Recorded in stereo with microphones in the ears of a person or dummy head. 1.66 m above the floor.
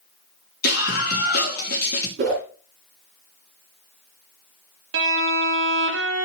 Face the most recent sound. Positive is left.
turn(degrees=-75)  # may be behind; listen again after turning